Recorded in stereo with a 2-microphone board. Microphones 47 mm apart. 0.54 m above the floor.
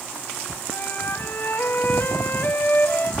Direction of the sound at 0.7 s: 45° left (ahead or behind).